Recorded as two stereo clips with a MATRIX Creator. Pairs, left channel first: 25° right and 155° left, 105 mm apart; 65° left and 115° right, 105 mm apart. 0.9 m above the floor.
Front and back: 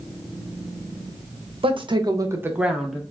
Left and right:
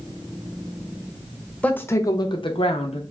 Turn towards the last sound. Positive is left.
turn(degrees=65)